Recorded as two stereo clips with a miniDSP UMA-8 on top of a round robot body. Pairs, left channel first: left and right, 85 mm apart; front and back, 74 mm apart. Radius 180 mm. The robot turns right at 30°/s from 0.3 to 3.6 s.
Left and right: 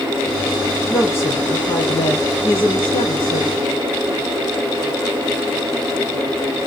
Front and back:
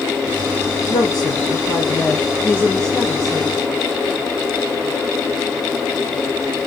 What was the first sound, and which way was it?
A woman speaking, 20° left.